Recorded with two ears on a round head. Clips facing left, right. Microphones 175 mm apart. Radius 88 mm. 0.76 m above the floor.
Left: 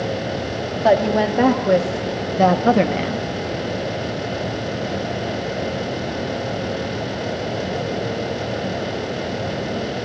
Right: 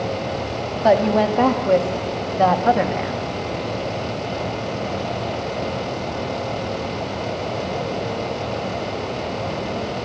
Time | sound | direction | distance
0.8 | a woman speaking | 5° left (ahead or behind) | 1.7 m